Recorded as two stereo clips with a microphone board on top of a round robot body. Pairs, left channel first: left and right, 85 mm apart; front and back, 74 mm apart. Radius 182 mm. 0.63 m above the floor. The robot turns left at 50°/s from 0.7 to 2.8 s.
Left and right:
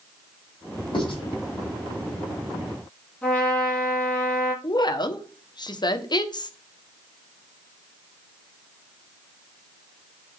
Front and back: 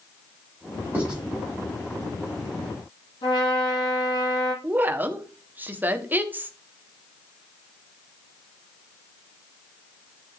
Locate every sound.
0.9 s writing: 115° left, 6 m; by 1.2 s 100° left, 6 m
3.2 s a trumpet: 15° left, 7 m
4.6 s a woman speaking: 120° left, 1.7 m